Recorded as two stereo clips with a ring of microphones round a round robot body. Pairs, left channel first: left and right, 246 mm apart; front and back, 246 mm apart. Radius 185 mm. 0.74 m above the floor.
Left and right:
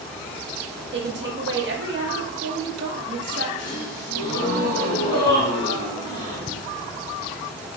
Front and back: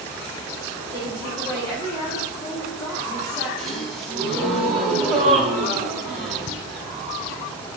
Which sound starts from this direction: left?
A gasp, at 3.6 s.